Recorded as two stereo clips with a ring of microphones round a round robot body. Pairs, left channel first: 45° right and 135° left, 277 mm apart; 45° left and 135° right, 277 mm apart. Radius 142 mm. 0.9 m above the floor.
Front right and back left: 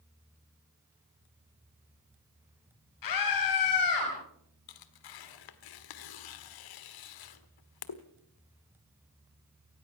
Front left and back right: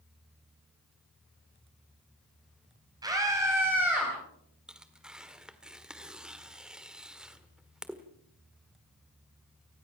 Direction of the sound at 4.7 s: 50° right.